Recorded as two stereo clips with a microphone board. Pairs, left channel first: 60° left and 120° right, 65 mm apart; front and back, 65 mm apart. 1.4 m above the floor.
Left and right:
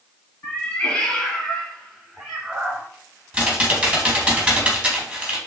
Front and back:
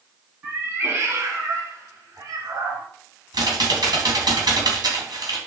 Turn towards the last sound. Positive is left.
turn(degrees=160)